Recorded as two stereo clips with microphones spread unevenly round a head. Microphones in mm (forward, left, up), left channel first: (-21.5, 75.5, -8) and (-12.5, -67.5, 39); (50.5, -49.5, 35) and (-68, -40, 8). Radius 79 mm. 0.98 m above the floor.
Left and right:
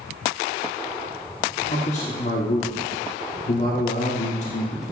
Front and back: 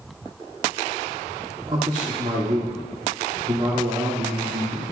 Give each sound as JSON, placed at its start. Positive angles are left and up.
{"t": 1.7, "sound": "a man speaking", "azimuth_deg": 120, "distance_m": 3.0}